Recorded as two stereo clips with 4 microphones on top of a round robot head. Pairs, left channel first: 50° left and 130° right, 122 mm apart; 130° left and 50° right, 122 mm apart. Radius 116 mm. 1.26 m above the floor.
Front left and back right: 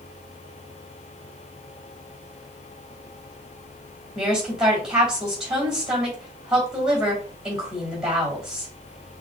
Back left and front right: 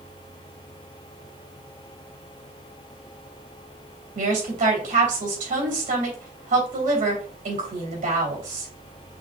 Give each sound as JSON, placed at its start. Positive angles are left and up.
{"t": 4.2, "sound": "a woman speaking", "azimuth_deg": -45, "distance_m": 3.0}